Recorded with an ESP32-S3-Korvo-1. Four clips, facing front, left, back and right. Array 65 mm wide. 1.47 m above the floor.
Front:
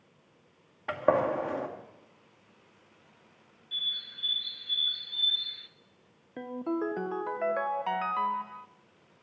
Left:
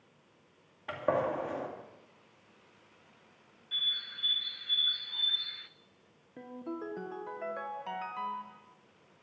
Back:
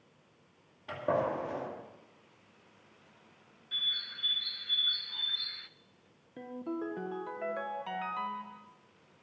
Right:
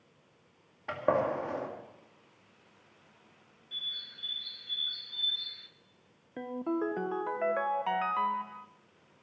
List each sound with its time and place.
0.9 s a gunshot: 15° right, 2 m
3.7 s a bird: 140° left, 0.5 m
6.4 s a ringtone: 45° right, 0.6 m